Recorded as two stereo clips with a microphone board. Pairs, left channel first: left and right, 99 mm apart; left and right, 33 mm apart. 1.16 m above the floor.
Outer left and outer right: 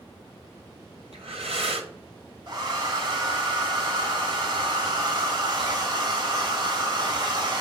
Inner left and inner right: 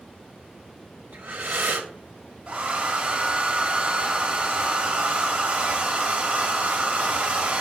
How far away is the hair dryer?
About 1.4 m.